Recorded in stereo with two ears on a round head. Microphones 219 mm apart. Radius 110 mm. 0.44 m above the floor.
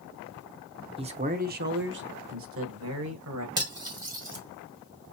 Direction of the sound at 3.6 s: 20° right (ahead or behind).